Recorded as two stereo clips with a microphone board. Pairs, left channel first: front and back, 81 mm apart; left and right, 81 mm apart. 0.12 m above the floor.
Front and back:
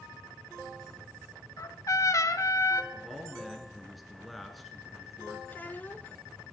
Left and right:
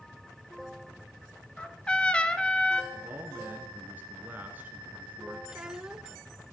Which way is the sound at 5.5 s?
20° right.